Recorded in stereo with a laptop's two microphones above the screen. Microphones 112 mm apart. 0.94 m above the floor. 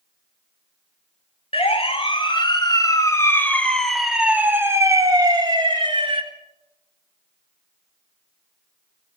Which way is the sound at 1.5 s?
55° left (ahead or behind).